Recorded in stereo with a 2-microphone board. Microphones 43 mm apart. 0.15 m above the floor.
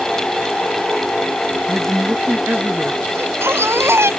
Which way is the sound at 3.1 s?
75° right (ahead or behind).